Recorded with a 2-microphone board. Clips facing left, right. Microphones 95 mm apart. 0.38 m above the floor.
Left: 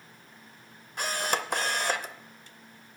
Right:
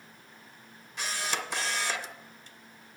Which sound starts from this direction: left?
A camera shutter, at 1.0 s.